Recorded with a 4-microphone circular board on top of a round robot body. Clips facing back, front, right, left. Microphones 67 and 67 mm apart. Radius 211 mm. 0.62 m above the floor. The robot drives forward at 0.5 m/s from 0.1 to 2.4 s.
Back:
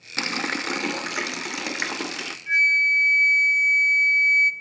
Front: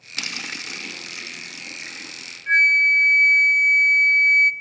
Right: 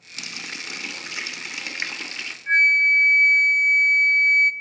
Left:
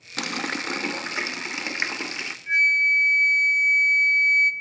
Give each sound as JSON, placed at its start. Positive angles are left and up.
{"t": 0.2, "sound": "a running tap", "azimuth_deg": 120, "distance_m": 0.7}
{"t": 2.5, "sound": "a flute", "azimuth_deg": -45, "distance_m": 0.8}